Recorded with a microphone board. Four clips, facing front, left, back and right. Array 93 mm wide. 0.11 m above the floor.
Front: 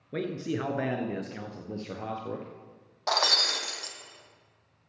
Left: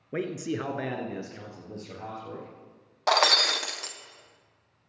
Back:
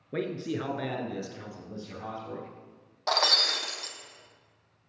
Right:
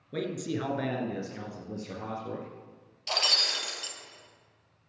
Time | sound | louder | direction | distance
0.1 | a man speaking | left 2 dB, even | 105° left | 1.6 m
3.1 | breaking glass | left 10 dB, even | 85° left | 1.7 m